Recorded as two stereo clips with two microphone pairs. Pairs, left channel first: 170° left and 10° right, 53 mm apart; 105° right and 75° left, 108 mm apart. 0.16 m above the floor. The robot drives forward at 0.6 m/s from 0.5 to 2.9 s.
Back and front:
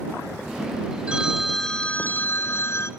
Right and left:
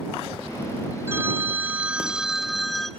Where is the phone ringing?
35° left, 0.7 m; by 2.9 s 165° left, 1.0 m.